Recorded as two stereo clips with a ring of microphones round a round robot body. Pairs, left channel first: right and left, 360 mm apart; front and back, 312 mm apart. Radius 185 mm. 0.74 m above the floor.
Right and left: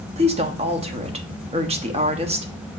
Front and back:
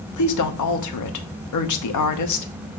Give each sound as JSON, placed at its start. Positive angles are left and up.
{"t": 0.2, "sound": "a woman speaking", "azimuth_deg": 20, "distance_m": 1.1}